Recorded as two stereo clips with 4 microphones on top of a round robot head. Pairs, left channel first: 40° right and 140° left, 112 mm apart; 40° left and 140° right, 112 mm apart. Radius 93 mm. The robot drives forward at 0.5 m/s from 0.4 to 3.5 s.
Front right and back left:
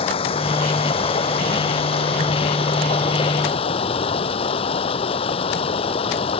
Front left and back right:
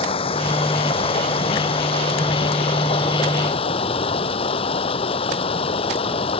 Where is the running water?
Straight ahead.